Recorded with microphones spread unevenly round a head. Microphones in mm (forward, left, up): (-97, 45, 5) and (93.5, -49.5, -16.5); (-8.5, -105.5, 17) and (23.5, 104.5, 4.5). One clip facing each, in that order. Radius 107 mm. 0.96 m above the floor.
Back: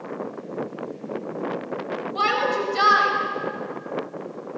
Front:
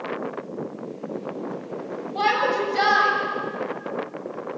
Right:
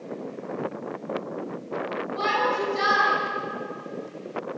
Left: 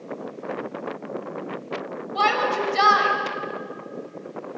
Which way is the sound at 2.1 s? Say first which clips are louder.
Front 2 dB, left 3 dB; 75° left.